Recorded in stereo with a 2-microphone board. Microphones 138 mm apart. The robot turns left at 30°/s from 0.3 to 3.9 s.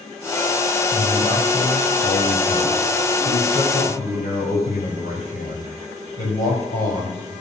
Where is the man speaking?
Straight behind, 3.5 m; by 7.3 s 90° left, 3.5 m.